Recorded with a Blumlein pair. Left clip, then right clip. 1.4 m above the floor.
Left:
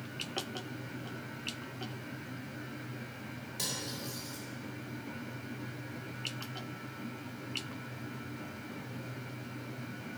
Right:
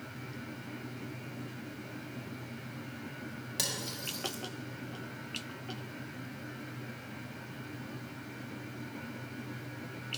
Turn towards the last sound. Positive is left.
turn(degrees=-30)